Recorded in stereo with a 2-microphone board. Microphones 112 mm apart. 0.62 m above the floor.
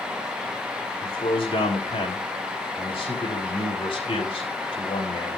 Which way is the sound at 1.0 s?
60° left (ahead or behind).